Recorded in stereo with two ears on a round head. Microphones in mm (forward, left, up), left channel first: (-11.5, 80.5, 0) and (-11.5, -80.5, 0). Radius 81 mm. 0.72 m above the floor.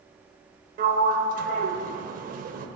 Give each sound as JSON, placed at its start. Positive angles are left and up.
{"t": 0.8, "sound": "a sliding door", "side_deg": -50, "distance_m": 0.6}